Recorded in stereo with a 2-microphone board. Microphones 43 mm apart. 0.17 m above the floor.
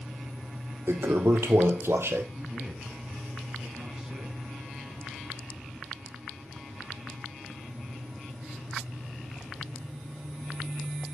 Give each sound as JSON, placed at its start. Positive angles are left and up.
{"t": 0.9, "sound": "a toilet flushing", "side_deg": -70, "distance_m": 1.2}
{"t": 2.4, "sound": "a man speaking", "side_deg": -15, "distance_m": 1.8}